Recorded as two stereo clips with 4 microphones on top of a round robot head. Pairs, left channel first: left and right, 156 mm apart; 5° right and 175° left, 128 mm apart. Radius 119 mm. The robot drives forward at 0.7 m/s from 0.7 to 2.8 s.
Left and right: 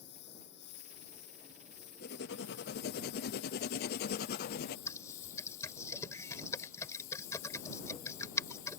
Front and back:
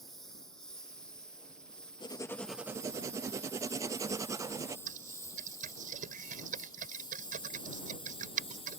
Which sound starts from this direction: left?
A lawn mower, at 0.0 s.